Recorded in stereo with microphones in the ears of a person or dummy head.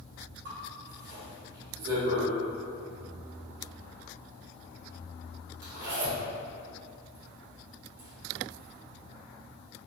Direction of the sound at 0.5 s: 55° right (ahead or behind).